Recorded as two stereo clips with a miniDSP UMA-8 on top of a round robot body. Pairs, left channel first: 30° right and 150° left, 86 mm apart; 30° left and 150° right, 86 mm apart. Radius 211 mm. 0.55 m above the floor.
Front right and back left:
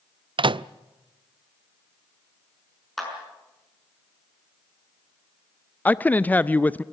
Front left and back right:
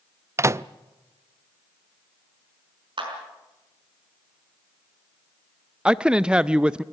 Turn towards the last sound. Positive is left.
turn(degrees=-80)